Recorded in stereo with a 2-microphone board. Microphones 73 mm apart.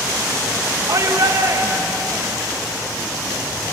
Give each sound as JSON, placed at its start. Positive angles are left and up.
{"t": 0.9, "sound": "a shout", "side_deg": -55, "distance_m": 2.0}